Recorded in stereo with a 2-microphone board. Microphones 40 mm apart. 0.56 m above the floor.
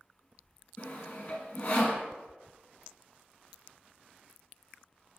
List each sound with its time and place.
0.8 s sawing: 45° left (ahead or behind), 1.9 m